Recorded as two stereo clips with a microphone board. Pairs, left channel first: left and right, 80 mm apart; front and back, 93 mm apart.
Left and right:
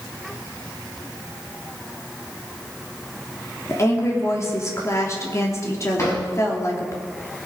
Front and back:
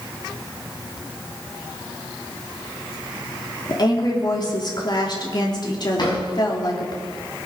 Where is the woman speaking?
40° left, 3 m.